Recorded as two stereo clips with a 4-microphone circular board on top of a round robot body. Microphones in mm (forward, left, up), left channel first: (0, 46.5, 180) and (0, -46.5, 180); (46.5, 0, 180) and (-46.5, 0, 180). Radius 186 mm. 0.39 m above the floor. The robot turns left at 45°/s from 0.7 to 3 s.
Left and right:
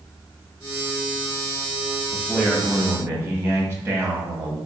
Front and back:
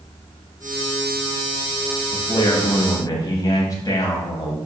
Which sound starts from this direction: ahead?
A man speaking, at 2.1 s.